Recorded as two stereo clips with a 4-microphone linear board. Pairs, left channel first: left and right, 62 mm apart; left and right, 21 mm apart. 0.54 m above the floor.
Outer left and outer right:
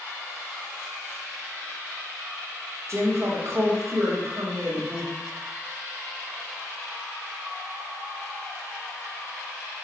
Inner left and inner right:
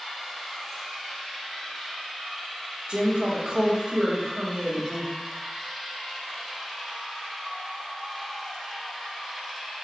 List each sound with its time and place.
2.9 s a woman speaking: 50° right (ahead or behind), 1.1 m